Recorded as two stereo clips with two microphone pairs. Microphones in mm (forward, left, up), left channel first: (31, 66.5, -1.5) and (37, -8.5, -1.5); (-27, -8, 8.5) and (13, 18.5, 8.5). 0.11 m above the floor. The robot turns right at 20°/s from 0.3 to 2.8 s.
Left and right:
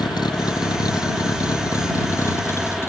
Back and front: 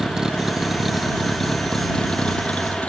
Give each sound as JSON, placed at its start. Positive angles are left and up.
{"t": 0.0, "sound": "a vehicle", "azimuth_deg": 110}